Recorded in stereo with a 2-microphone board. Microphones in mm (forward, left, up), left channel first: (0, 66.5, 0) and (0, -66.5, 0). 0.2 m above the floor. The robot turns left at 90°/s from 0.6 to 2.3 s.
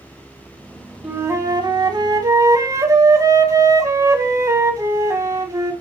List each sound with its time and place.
1.0 s a flute: 20° right, 1.7 m; by 5.7 s 135° right, 1.7 m